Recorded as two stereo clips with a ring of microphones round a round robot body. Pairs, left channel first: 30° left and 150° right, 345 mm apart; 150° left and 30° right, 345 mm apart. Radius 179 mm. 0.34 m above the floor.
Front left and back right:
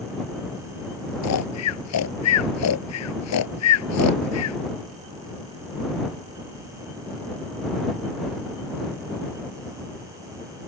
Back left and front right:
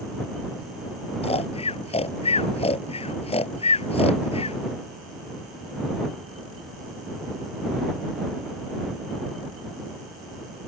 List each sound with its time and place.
1.2 s snoring: 75° left